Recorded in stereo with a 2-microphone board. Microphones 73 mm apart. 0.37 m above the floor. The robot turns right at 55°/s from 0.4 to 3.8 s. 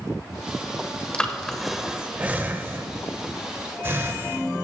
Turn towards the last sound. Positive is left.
turn(degrees=-35)  # may be behind; listen again after turning